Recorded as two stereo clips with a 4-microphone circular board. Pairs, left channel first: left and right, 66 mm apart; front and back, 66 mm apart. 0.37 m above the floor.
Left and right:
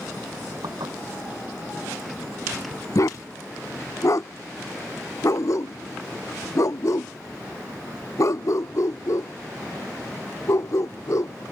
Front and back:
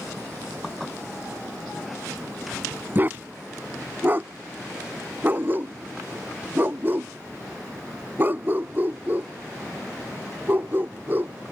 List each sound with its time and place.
0.6 s dishes clattering: 85° right
3.0 s a dog barking: 125° left